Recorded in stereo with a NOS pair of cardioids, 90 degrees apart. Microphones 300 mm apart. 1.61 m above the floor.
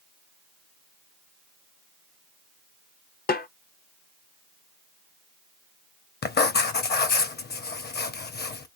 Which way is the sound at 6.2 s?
35° left.